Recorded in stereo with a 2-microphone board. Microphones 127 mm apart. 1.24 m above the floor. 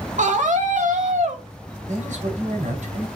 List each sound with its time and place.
0.2 s a scream: 75° right (ahead or behind), 2 m
1.9 s a man speaking: 75° right (ahead or behind), 6 m